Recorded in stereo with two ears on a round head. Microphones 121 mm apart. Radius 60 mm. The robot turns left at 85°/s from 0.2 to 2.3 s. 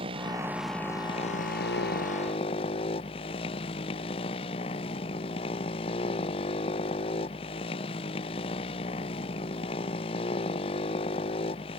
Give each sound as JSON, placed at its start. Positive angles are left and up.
{"t": 0.0, "sound": "a motorcycle", "azimuth_deg": -140}